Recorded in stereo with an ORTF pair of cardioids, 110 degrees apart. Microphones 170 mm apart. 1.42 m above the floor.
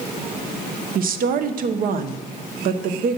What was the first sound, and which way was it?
A woman speaking, 55° right.